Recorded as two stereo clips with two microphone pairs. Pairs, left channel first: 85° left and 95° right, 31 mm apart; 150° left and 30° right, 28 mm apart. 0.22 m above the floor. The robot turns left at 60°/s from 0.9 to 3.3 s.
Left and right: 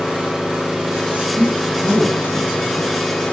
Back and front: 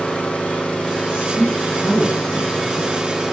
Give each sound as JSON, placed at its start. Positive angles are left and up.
{"t": 0.0, "sound": "an engine running", "azimuth_deg": -165, "distance_m": 5.5}
{"t": 1.1, "sound": "a woman speaking", "azimuth_deg": -70, "distance_m": 2.0}